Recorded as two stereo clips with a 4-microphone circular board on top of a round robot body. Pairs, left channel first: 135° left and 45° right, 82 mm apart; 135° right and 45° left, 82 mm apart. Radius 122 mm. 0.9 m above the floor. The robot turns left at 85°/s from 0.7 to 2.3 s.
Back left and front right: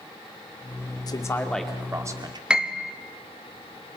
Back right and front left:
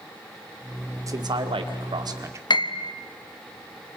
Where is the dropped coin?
No dropped coin in this recording.